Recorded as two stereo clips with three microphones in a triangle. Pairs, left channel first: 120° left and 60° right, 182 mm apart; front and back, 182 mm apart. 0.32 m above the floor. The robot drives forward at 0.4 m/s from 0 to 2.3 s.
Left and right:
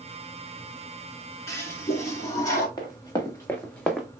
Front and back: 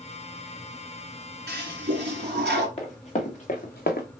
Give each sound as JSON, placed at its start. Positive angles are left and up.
{"t": 1.5, "sound": "a toilet flushing", "azimuth_deg": -165, "distance_m": 1.6}
{"t": 2.8, "sound": "running footsteps", "azimuth_deg": 50, "distance_m": 2.5}